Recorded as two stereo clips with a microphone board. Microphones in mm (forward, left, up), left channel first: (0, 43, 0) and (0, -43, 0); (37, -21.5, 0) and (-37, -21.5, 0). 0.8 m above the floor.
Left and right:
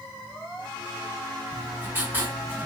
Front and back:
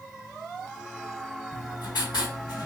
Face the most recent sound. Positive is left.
turn(degrees=-20)